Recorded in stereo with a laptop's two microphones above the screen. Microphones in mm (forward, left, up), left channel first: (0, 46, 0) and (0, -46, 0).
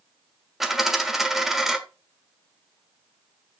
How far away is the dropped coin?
About 1.2 m.